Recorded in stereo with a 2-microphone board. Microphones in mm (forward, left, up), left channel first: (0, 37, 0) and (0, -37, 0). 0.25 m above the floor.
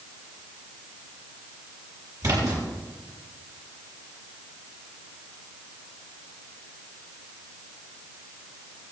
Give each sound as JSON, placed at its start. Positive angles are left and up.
{"t": 2.2, "sound": "a splash", "side_deg": -50, "distance_m": 7.0}